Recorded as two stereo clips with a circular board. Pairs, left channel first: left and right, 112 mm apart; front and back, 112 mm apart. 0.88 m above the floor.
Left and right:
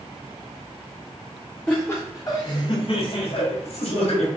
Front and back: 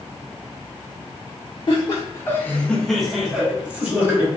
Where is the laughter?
20° left, 0.7 m; by 4.3 s 110° left, 1.3 m.